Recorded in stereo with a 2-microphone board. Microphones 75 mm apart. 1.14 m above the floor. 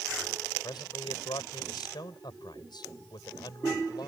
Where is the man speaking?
75° left (ahead or behind).